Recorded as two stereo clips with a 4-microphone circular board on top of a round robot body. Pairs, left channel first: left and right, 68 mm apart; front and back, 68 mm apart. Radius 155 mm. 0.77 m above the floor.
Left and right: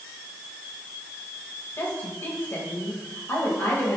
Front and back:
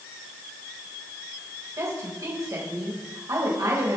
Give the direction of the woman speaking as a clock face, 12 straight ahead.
7 o'clock.